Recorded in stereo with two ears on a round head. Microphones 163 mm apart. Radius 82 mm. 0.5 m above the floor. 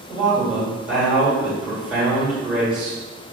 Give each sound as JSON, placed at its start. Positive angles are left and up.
{"t": 0.1, "sound": "a man speaking", "side_deg": -5, "distance_m": 1.8}